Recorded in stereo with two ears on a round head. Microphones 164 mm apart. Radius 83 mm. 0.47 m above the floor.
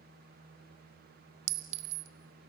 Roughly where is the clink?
Right.